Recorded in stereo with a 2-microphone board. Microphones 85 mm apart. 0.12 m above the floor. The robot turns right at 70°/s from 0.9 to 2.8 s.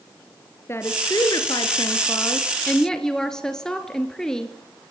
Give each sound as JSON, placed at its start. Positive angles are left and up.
{"t": 0.7, "sound": "a woman speaking", "azimuth_deg": 40, "distance_m": 1.7}